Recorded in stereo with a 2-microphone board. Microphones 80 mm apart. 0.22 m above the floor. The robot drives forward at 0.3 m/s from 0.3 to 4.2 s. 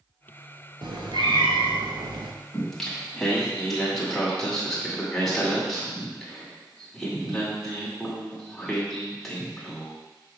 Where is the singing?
5° left (ahead or behind), 1.6 m.